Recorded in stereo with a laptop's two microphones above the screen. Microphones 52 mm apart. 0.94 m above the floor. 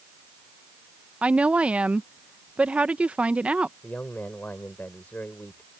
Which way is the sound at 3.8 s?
35° left (ahead or behind).